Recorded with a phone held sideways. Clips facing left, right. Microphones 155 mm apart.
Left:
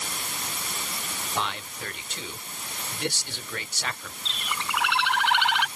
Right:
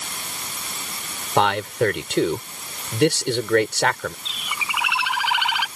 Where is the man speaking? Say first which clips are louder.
Right 14 dB; 85° right.